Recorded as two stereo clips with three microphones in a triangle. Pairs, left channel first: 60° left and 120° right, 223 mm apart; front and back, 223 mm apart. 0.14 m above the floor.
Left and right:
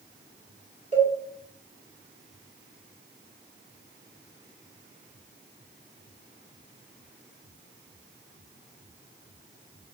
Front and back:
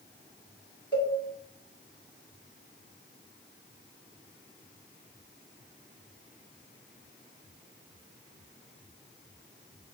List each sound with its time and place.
0.9 s a cowbell: 50° left, 1.1 m